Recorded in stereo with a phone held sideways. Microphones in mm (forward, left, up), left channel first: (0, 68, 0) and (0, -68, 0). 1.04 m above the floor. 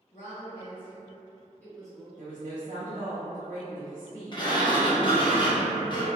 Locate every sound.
0.1 s a woman speaking: 45° left (ahead or behind), 1.4 m; by 2.1 s 5° right (ahead or behind), 0.8 m
2.2 s a woman speaking: 75° right (ahead or behind), 0.6 m
4.3 s a sliding door: 35° left (ahead or behind), 0.5 m